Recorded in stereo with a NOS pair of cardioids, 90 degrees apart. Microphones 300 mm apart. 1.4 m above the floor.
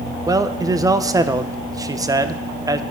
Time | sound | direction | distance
0.3 | a man speaking | 10° right | 0.6 m